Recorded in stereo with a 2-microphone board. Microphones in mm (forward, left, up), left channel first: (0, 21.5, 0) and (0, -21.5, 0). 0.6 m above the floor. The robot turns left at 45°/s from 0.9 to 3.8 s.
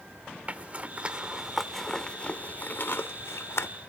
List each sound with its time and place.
0.5 s a zipper: 35° right (ahead or behind), 0.7 m; by 3.7 s 85° left, 0.7 m